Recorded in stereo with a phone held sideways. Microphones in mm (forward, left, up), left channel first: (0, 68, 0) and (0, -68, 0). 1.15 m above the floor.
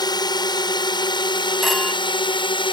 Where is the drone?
35° left (ahead or behind); by 2.7 s 40° left (ahead or behind).